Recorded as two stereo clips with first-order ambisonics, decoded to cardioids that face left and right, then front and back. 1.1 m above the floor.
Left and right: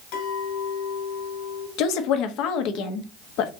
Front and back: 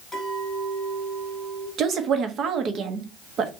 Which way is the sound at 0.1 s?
80° left.